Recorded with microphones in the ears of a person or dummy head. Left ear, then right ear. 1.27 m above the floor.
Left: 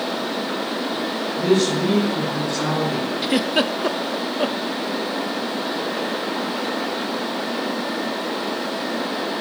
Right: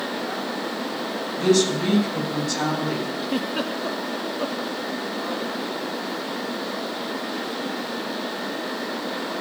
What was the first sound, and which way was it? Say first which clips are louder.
A woman speaking: left 1 dB; 50° right (ahead or behind).